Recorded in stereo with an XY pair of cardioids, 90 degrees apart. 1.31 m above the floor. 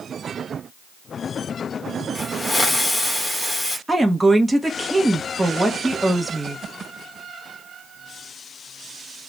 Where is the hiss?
15° left, 1.1 m.